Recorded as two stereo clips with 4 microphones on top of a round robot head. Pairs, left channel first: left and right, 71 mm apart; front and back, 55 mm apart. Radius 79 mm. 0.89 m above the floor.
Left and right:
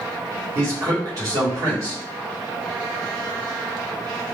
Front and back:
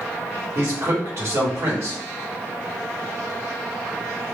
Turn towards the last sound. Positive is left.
turn(degrees=-140)